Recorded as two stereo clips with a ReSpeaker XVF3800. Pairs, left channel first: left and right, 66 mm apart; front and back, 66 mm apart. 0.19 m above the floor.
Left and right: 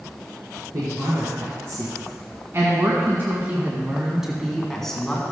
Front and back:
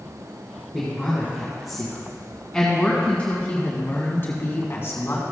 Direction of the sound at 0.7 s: 95° right.